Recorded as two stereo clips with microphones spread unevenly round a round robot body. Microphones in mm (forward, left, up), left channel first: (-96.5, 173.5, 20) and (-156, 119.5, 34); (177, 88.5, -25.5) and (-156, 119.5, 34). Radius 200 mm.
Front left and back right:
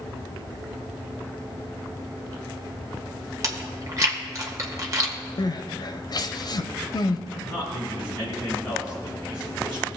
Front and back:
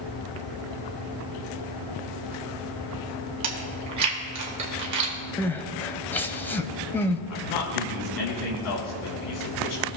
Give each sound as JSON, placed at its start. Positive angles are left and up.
{"t": 3.4, "sound": "chewing", "azimuth_deg": 175, "distance_m": 1.6}
{"t": 5.4, "sound": "crying", "azimuth_deg": 75, "distance_m": 0.7}
{"t": 7.3, "sound": "a man speaking", "azimuth_deg": -35, "distance_m": 3.0}